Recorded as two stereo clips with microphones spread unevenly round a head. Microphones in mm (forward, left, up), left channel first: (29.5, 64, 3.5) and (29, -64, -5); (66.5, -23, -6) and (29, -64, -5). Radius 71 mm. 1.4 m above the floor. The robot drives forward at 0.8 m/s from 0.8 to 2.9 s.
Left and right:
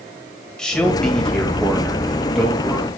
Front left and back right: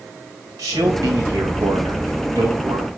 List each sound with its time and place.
0.6 s a man speaking: 175° left, 1.6 m; by 2.9 s straight behind, 3 m